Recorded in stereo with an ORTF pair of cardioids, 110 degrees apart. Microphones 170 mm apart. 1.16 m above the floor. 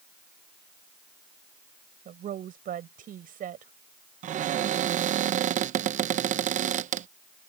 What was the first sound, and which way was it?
A woman speaking, 55° right.